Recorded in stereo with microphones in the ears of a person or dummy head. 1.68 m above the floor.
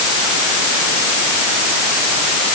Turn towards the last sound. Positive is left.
No sound to turn to.